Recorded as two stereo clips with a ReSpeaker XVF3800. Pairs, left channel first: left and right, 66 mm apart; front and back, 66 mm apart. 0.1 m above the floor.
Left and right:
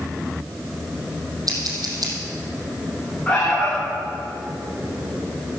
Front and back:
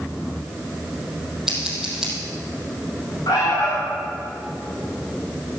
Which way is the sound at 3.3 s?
20° left.